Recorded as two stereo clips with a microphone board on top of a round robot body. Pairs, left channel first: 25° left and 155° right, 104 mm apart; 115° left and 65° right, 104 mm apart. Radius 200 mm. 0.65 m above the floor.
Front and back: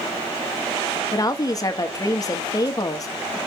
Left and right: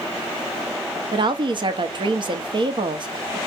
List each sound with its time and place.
1.1 s a woman speaking: 30° right, 1.4 m